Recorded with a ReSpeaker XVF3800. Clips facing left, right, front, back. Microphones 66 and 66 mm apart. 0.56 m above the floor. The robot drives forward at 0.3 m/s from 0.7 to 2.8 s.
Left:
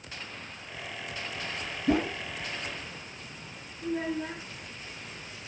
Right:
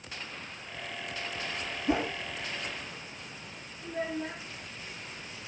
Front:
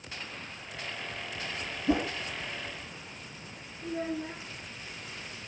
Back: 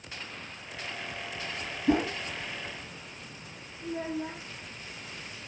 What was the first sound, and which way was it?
A whoosh, 140° left.